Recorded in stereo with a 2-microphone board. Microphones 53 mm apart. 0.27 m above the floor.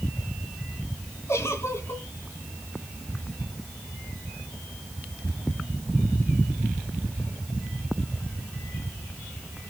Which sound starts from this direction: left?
A giggle, at 1.3 s.